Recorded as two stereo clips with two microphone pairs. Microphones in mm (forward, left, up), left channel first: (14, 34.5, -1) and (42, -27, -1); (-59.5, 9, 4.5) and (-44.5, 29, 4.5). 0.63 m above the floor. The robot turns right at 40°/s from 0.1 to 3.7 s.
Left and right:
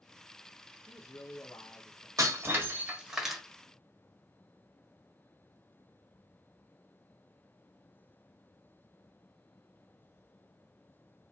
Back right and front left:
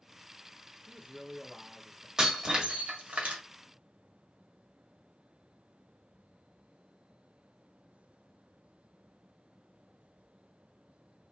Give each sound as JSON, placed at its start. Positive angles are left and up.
{"t": 0.9, "sound": "a man speaking", "azimuth_deg": 85, "distance_m": 1.0}
{"t": 2.2, "sound": "breaking glass", "azimuth_deg": -25, "distance_m": 1.5}